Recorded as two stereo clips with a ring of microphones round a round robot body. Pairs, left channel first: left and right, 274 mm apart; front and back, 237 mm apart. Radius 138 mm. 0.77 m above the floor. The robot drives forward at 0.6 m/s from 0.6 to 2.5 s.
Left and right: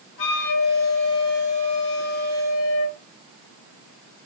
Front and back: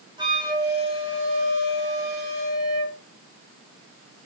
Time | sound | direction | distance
0.2 | a flute | 110° left | 5 m